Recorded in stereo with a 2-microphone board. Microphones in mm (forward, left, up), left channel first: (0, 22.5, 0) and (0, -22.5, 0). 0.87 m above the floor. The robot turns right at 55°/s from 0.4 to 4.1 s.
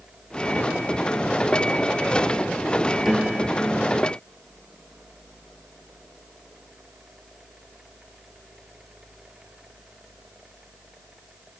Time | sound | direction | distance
3.0 | a piano | 175° right | ?